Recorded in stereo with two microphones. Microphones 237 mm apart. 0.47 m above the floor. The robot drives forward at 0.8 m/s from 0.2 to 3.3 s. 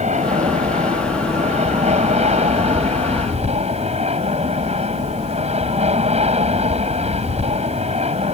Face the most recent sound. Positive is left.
turn(degrees=-25)  # may be behind; listen again after turning